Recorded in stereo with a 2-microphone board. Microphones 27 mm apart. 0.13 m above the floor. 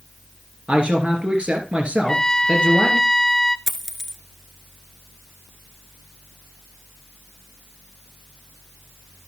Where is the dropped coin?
5° left (ahead or behind), 0.9 m.